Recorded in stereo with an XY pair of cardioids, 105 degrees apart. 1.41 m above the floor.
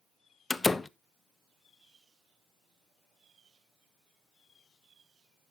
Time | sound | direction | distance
0.5 | a door slam | 15° left | 0.5 m